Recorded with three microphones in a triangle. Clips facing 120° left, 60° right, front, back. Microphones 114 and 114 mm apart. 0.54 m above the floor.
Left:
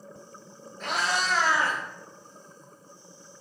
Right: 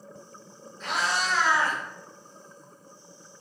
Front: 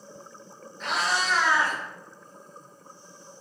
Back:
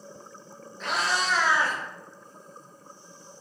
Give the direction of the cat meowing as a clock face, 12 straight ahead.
9 o'clock.